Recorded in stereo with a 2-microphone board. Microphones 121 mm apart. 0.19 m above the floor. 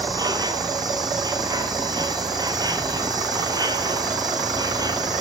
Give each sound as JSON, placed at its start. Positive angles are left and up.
{"t": 0.0, "sound": "an insect", "side_deg": -30, "distance_m": 1.1}